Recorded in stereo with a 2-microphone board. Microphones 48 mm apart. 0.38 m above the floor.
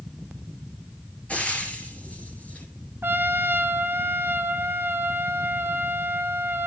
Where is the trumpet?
45° right (ahead or behind), 1.3 m.